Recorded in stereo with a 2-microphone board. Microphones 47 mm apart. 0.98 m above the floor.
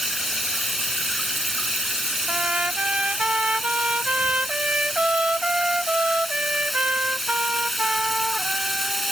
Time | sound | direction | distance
0.0 | running water | centre (ahead or behind) | ?
2.3 | a trumpet | 30° right (ahead or behind) | ?